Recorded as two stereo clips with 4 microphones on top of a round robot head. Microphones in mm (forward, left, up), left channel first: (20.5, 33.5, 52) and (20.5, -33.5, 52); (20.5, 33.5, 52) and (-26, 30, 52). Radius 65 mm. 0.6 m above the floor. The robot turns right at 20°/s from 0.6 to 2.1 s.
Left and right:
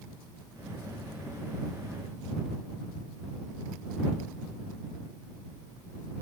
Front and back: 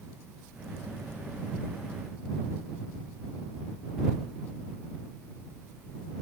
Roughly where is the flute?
No flute in this recording.